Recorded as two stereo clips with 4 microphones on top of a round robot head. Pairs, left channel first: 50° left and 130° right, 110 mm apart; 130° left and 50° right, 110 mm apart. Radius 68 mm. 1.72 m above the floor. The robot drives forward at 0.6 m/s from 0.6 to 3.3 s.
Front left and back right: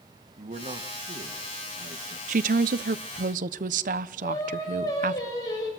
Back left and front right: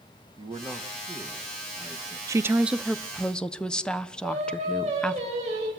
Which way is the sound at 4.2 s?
15° right.